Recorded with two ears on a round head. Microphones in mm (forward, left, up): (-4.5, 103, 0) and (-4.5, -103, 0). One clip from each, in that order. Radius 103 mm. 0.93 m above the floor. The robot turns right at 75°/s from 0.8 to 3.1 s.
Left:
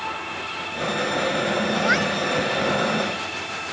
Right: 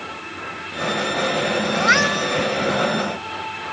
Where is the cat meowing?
55° right; by 2.4 s 10° right.